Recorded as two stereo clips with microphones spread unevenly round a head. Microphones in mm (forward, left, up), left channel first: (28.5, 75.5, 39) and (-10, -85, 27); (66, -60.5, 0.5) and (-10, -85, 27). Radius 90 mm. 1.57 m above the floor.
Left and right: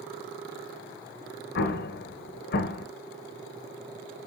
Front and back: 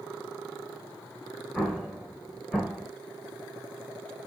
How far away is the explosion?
About 0.5 m.